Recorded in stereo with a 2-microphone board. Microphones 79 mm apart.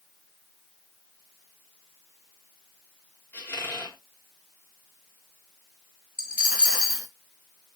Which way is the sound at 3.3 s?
25° left (ahead or behind).